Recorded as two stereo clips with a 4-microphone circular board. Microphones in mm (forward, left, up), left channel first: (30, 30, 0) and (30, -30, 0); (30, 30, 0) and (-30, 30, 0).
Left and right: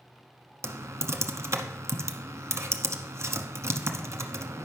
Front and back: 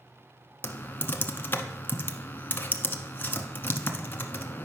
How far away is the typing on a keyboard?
About 0.8 m.